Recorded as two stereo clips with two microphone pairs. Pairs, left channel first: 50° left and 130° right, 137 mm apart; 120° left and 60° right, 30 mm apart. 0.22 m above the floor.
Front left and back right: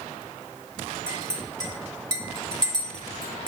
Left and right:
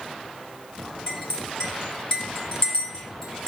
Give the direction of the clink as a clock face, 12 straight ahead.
6 o'clock.